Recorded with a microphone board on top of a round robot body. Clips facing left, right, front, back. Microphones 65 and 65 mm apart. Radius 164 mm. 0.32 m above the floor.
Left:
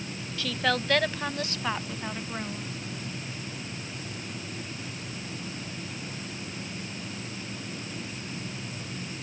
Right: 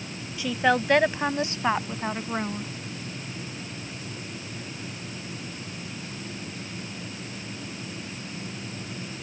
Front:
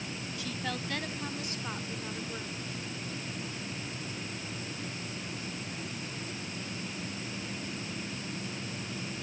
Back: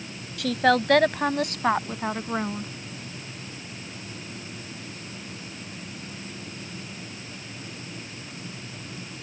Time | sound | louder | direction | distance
0.4 | a woman speaking | right 5 dB, back 18 dB | 165° right | ?